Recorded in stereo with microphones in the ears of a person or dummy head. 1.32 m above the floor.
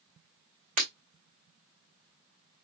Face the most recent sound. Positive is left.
turn(degrees=-40)  # may be behind; listen again after turning